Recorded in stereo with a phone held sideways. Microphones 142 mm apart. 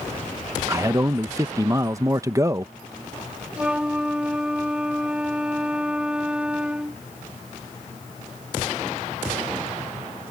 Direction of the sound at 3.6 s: 5° right (ahead or behind).